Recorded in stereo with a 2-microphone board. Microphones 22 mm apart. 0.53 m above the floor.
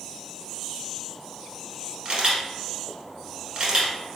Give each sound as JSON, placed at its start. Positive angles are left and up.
{"t": 2.0, "sound": "a camera shutter", "side_deg": -40, "distance_m": 1.5}